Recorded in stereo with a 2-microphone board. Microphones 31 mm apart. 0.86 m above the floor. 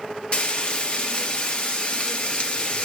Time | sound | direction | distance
0.3 | frying | 40° left (ahead or behind) | 1.0 m